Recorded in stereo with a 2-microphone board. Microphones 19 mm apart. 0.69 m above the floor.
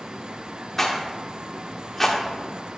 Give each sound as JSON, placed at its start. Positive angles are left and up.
{"t": 0.8, "sound": "a rattle", "side_deg": 5, "distance_m": 1.5}